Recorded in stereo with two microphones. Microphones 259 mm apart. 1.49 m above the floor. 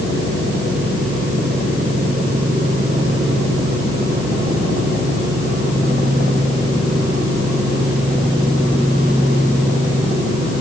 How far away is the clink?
I don't hear a clink.